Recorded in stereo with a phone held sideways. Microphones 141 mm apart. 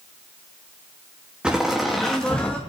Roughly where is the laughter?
Centre.